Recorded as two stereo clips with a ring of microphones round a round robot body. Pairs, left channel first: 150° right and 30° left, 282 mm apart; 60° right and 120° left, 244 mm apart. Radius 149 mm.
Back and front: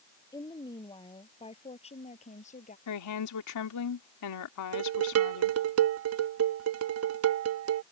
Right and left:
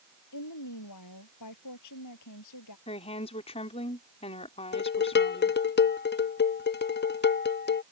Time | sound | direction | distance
0.3 | a woman speaking | 75° right | ?
2.9 | a woman speaking | 130° right | ?
4.7 | dishes clattering | 10° right | ?